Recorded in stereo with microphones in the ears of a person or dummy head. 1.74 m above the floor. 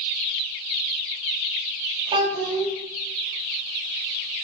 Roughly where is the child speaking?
Right.